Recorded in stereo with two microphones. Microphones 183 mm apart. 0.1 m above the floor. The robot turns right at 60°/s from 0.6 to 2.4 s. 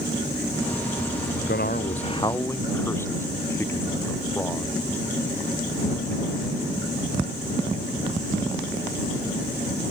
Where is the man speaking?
110° left; by 4.8 s 165° left.